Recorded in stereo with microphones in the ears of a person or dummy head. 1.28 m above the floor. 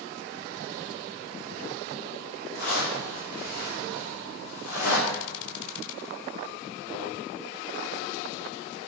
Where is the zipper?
45° left (ahead or behind), 2.5 m.